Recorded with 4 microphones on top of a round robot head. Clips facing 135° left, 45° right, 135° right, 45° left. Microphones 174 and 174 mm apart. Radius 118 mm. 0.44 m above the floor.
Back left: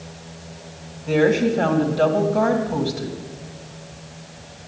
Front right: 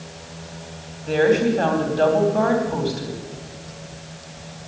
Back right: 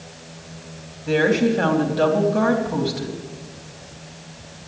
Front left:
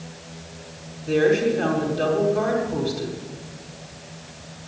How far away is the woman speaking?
About 3 m.